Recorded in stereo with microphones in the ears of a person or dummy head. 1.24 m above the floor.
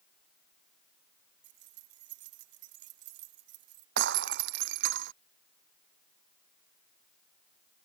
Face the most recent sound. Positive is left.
turn(degrees=-65)  # may be behind; listen again after turning